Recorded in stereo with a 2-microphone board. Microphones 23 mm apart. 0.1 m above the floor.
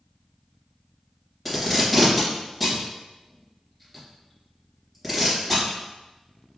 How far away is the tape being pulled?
About 1.5 m.